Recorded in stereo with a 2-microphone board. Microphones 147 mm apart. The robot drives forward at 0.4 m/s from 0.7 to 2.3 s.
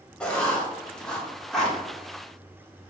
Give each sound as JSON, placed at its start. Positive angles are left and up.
{"t": 0.2, "sound": "writing", "side_deg": 5, "distance_m": 1.3}